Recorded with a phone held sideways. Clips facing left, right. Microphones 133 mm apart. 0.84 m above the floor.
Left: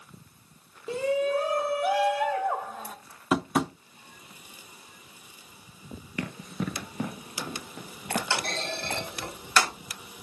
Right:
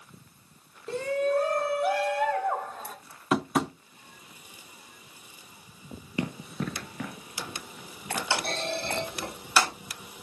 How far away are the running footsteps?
About 0.9 m.